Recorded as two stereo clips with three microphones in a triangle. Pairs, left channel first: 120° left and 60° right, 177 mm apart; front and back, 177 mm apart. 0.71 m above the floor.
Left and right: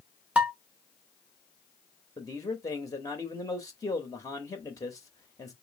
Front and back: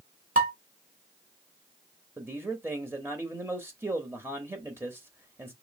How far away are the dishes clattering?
About 1.4 m.